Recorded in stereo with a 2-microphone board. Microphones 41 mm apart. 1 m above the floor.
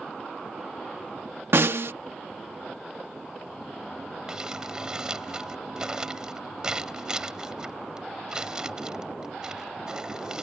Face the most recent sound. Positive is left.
turn(degrees=-15)  # may be behind; listen again after turning